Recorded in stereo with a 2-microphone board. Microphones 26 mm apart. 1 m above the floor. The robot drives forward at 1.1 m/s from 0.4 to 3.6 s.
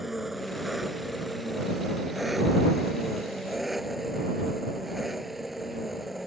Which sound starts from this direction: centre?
An engine running, at 0.0 s.